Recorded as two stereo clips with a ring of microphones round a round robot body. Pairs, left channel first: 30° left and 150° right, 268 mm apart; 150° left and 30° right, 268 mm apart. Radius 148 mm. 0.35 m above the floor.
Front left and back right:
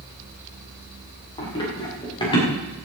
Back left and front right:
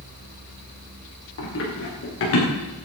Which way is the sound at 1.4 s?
105° left.